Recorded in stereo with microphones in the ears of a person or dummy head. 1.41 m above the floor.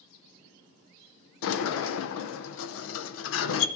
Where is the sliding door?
70° left (ahead or behind), 0.6 m.